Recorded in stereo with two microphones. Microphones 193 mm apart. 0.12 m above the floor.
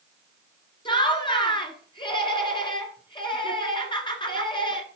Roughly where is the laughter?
Left.